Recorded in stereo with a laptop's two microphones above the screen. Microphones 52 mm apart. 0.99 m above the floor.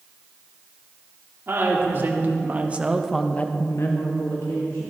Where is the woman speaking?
50° right (ahead or behind), 2.5 m; by 4.9 s 75° left (ahead or behind), 2 m.